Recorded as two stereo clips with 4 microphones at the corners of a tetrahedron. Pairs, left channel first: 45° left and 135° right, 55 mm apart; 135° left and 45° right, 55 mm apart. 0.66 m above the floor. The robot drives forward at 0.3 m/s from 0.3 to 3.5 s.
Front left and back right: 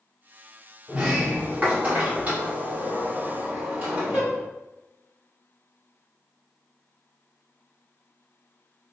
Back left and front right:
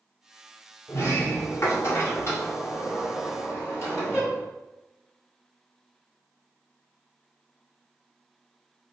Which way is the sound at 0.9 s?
165° left.